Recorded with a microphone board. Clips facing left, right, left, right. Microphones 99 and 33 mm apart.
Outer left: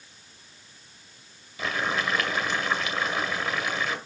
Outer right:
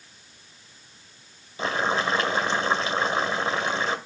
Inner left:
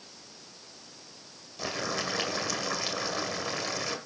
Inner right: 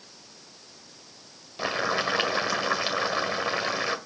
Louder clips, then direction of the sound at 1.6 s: Outer right 4 dB, inner right 6 dB; 30° right (ahead or behind).